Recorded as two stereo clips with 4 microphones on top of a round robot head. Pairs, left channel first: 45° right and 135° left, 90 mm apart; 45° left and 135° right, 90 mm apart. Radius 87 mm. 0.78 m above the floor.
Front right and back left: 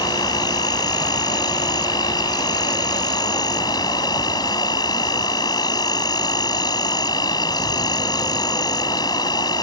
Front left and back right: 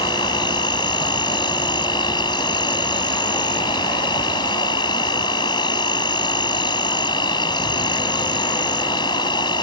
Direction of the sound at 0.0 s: 5° left.